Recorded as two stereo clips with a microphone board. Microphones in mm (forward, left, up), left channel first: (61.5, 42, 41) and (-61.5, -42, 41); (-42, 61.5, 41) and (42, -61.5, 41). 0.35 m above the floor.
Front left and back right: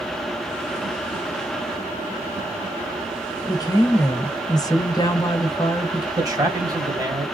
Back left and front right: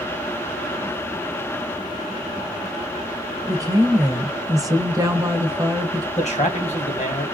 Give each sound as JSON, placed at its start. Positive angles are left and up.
{"t": 3.5, "sound": "a woman speaking", "azimuth_deg": -10, "distance_m": 1.6}
{"t": 6.2, "sound": "a man speaking", "azimuth_deg": 150, "distance_m": 2.0}